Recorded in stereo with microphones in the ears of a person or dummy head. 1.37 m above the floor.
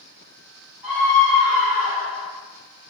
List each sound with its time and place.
0.8 s a scream: 10° right (ahead or behind), 1.9 m